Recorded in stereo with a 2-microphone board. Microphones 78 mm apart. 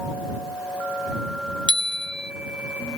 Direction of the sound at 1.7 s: 80° right.